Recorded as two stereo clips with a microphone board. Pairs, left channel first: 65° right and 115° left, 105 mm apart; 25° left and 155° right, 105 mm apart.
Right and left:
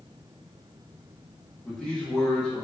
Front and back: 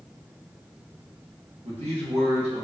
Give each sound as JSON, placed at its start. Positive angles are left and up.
{"t": 1.6, "sound": "a man speaking", "azimuth_deg": -150, "distance_m": 0.9}